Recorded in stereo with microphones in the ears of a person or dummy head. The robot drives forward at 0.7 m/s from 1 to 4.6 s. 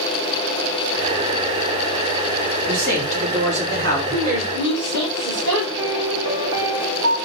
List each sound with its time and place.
2.7 s a man speaking: 55° right (ahead or behind), 3.5 m; by 4.0 s 65° right (ahead or behind), 3 m
4.1 s a woman speaking: 60° right (ahead or behind), 4 m; by 5.7 s 65° right (ahead or behind), 3.5 m
5.8 s a piano: 75° right (ahead or behind), 3 m